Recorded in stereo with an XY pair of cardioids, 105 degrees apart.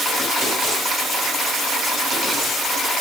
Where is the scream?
No scream in this recording.